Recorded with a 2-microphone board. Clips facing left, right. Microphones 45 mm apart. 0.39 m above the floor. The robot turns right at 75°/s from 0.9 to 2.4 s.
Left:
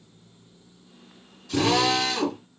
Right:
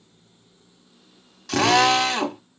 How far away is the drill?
About 0.9 m.